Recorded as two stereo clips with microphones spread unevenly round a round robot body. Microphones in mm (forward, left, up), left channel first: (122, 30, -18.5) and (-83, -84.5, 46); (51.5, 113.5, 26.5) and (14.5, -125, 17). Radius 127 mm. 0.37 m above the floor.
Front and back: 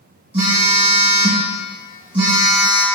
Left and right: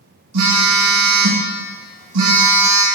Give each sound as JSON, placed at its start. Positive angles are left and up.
{"t": 0.3, "sound": "a phone buzzing", "azimuth_deg": -80, "distance_m": 1.6}